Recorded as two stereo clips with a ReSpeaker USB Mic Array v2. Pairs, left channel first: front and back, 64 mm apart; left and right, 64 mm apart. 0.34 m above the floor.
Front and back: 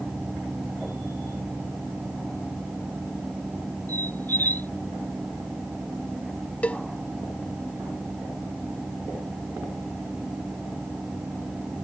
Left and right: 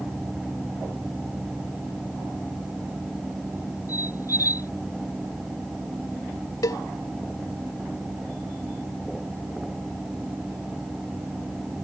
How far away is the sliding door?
I don't hear a sliding door.